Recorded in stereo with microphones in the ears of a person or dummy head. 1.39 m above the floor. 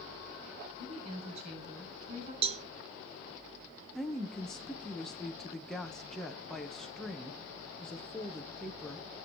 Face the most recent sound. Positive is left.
turn(degrees=0)  # may be behind; listen again after turning